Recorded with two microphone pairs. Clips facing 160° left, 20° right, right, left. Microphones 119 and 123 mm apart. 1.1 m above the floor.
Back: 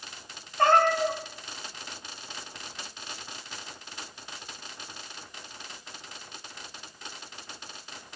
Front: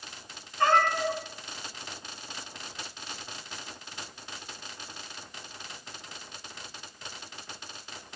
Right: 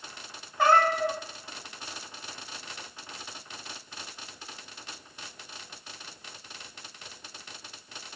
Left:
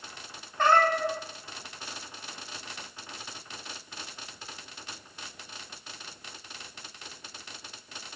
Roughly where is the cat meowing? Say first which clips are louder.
Back 3 dB, right 1 dB; behind.